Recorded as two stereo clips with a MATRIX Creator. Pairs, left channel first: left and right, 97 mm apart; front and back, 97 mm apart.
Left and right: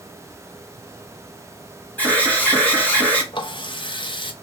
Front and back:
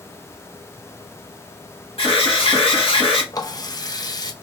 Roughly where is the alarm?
Ahead.